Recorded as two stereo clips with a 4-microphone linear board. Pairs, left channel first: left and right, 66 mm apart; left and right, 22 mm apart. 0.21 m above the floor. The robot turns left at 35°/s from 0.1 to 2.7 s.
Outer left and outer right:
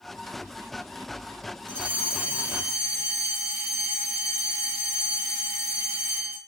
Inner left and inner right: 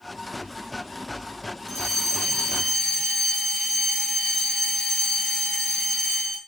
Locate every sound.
1.7 s a fire alarm: 160° left, 6.5 m; by 6.4 s 125° left, 6.5 m